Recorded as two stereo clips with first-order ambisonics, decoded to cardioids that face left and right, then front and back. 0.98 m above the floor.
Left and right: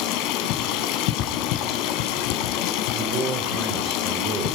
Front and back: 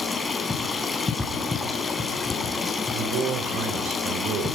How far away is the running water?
About 4 m.